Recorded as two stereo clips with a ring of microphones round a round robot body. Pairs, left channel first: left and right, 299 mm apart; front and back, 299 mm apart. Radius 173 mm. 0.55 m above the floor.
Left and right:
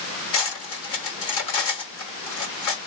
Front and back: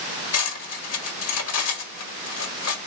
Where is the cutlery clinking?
40° left, 1.2 m.